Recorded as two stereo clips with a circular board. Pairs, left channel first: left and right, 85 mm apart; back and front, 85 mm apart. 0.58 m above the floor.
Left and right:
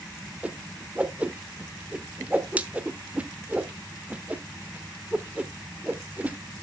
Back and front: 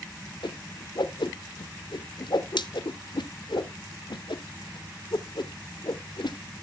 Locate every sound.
0.4 s a whoosh: 165° right, 0.8 m